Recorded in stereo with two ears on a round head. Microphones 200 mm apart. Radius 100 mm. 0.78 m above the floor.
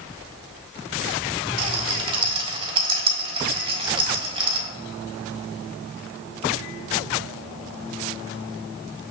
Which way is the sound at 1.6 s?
20° right (ahead or behind).